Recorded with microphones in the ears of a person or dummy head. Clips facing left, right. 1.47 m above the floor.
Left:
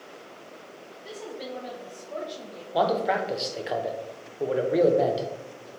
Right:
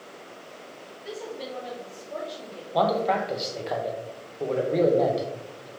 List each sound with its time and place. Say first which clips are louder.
1.0 s a woman speaking: right 2 dB; 5° right (ahead or behind), 1.2 m
2.7 s a man speaking: right 1 dB; 10° left (ahead or behind), 0.6 m